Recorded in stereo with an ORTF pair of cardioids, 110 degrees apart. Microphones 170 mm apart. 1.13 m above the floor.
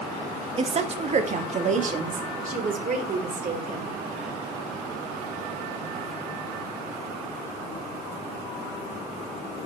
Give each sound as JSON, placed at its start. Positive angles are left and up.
{"t": 0.6, "sound": "a woman speaking", "azimuth_deg": -35, "distance_m": 1.1}